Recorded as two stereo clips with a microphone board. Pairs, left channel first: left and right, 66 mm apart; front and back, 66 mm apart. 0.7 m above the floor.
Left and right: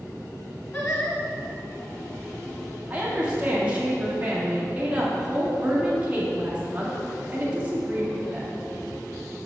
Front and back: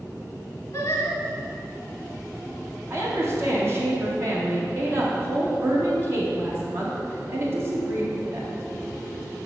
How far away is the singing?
About 1.6 m.